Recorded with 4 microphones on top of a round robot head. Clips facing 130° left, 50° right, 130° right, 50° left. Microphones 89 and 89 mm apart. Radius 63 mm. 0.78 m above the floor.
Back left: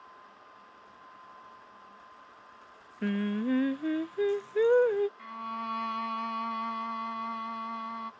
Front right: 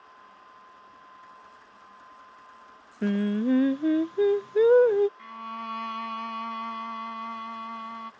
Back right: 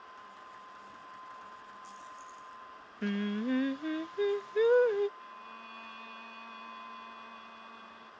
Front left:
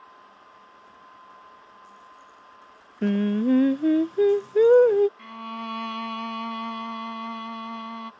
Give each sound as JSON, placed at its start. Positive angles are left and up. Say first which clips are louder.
{"t": 3.0, "sound": "singing", "louder": "front right 5 dB, front left 11 dB", "azimuth_deg": 10}
{"t": 5.2, "sound": "a violin", "louder": "even, front left 13 dB", "azimuth_deg": 45}